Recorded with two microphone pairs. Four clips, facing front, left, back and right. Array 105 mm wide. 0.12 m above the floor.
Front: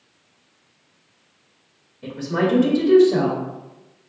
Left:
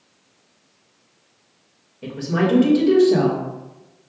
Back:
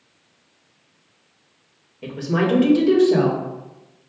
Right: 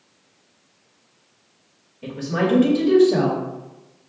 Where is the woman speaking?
150° left, 2 m.